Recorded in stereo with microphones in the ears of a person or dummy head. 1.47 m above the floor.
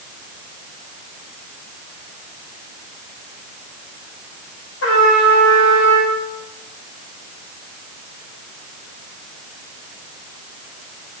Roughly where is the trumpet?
Left.